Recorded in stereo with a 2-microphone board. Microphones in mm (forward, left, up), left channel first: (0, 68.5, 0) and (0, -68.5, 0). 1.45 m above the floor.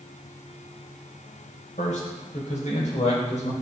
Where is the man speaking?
65° left (ahead or behind), 9 m; by 3.5 s 60° left (ahead or behind), 7 m.